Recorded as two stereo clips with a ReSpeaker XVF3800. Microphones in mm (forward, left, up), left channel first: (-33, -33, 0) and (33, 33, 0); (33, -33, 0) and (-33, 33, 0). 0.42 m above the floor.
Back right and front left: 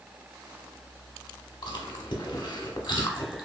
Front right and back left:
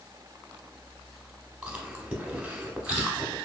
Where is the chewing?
150° right, 0.8 m.